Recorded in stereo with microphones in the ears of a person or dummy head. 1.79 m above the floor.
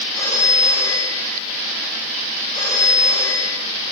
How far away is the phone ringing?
About 9 m.